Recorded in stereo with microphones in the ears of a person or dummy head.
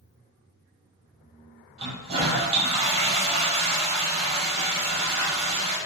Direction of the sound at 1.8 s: 35° right (ahead or behind).